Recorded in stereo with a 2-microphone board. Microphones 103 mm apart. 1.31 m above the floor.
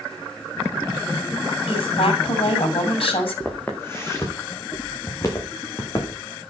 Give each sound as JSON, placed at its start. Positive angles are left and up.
{"t": 1.7, "sound": "a woman speaking", "side_deg": 65, "distance_m": 7.0}
{"t": 3.5, "sound": "footsteps", "side_deg": 20, "distance_m": 5.5}